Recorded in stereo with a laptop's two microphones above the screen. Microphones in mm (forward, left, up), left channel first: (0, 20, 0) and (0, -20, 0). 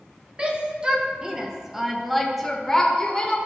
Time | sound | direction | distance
0.4 | a shout | 25° right (ahead or behind) | 1.0 m